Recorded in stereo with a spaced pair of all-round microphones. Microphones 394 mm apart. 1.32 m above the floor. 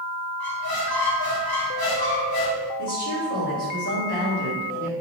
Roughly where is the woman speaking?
Left.